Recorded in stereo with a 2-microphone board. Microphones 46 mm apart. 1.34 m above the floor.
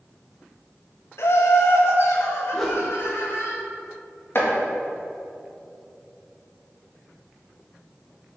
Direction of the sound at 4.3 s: 50° left (ahead or behind).